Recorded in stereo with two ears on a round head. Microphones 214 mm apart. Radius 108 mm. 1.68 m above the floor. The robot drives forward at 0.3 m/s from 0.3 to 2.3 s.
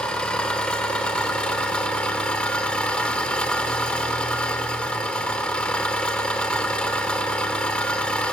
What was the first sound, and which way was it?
An engine running, 5° left (ahead or behind).